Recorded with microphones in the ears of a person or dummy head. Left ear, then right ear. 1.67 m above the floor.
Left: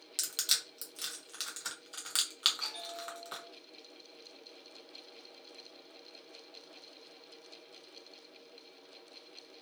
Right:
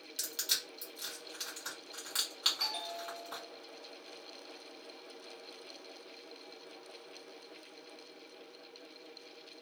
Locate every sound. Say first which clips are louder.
0.2 s crushing: left 3 dB; 25° left (ahead or behind), 0.8 m
2.6 s a bell: right 3 dB; 50° right (ahead or behind), 0.6 m